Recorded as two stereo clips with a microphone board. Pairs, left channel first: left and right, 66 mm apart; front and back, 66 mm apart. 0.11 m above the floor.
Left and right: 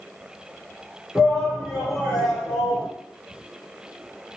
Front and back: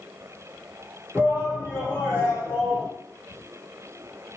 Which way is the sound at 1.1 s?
170° right.